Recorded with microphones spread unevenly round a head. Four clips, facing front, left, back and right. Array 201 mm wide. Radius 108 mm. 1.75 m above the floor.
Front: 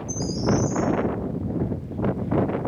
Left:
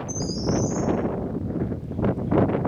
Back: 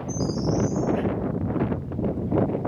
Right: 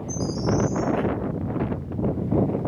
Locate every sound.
0.1 s a bird: 10° right, 6.5 m